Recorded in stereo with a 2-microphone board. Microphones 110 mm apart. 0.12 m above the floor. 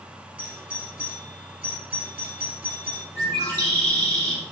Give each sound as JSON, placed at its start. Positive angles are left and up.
{"t": 0.4, "sound": "a doorbell", "side_deg": -10, "distance_m": 2.5}
{"t": 3.1, "sound": "a bird", "side_deg": 25, "distance_m": 4.0}